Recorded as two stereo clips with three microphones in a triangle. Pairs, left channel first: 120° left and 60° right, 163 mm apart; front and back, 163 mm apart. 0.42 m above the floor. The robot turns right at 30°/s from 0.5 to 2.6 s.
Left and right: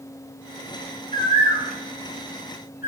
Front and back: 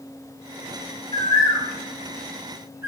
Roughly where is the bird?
Ahead left.